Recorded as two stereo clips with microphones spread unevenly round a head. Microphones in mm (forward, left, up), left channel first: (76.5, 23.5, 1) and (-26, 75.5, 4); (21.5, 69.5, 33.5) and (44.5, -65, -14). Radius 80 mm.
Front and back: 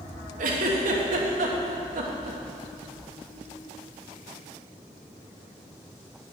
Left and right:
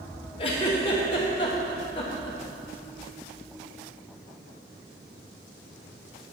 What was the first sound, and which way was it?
A giggle, 160° left.